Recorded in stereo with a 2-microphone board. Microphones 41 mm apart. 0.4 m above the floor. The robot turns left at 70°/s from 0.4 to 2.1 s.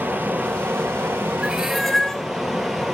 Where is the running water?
50° right, 2.5 m; by 2.9 s 170° right, 2.5 m.